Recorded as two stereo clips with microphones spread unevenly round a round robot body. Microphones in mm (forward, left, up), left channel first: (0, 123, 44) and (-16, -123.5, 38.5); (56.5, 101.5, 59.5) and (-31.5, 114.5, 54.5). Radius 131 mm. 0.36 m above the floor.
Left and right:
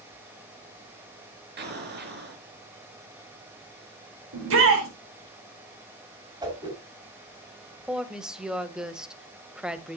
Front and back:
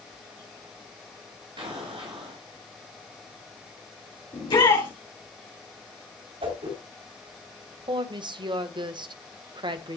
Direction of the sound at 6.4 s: 165° right.